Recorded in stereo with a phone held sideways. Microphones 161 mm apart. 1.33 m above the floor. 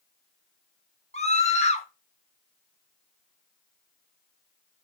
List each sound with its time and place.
1.1 s a scream: 45° left (ahead or behind), 1.2 m